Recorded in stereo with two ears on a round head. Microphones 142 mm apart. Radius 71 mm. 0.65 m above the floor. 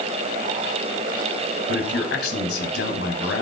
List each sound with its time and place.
1.7 s a man speaking: 80° left, 4.5 m